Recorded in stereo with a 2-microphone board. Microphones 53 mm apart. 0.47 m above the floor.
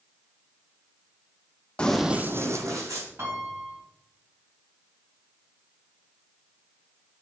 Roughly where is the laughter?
I don't hear laughter.